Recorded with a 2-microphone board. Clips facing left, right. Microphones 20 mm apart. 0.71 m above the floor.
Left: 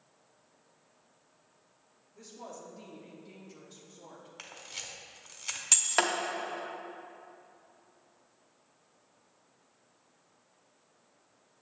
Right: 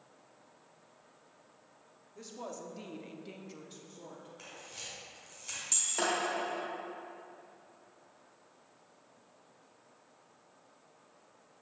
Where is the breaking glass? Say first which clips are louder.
Left 5 dB; 85° left, 1.0 m.